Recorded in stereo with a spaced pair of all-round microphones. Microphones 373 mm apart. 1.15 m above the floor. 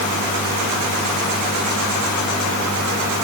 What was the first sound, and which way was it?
Only background noise.